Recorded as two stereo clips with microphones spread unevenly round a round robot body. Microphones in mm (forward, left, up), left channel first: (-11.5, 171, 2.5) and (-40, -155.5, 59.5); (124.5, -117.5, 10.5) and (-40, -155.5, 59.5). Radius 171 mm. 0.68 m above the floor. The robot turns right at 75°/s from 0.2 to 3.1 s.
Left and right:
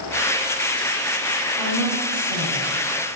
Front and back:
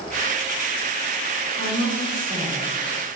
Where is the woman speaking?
80° left, 2.5 m; by 3.2 s 165° right, 2.5 m.